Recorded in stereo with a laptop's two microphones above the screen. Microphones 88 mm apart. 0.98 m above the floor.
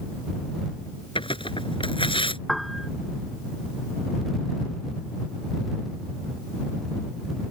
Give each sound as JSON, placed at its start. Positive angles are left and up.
{"t": 1.1, "sound": "tearing paper", "side_deg": 85}
{"t": 2.5, "sound": "a piano", "side_deg": 0}